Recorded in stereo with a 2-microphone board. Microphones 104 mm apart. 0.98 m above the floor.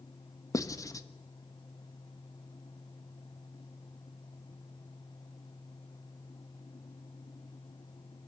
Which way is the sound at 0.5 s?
30° left (ahead or behind).